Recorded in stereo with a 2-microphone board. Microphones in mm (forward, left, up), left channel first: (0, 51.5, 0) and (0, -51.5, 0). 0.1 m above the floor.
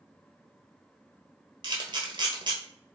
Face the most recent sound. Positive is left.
turn(degrees=-50)  # may be behind; listen again after turning